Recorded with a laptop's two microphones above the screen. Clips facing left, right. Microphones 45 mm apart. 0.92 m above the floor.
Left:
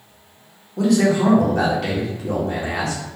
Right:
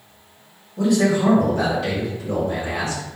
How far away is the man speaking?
About 1.8 m.